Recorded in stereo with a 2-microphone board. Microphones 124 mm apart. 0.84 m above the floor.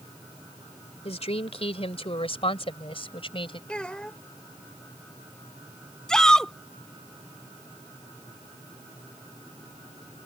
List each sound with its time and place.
1.1 s a woman speaking: 55° left (ahead or behind); by 3.6 s 45° left (ahead or behind)
3.7 s a child speaking: 10° left (ahead or behind)
6.1 s a shout: 5° left (ahead or behind)